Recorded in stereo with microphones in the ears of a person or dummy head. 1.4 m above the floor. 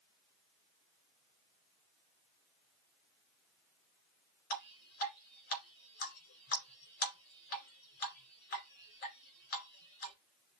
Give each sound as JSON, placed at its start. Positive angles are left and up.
{"t": 4.5, "sound": "dripping", "side_deg": 50, "distance_m": 3.0}